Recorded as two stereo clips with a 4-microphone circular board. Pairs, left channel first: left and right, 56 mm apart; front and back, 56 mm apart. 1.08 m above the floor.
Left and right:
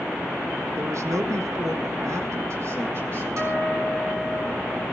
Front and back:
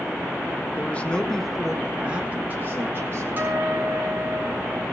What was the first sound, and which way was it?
A man speaking, 60° right.